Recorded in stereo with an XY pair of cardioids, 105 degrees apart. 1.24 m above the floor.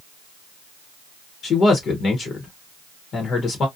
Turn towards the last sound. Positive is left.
turn(degrees=50)